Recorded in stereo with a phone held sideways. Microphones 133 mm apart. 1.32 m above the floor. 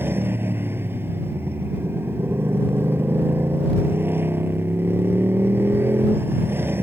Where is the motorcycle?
15° right (ahead or behind).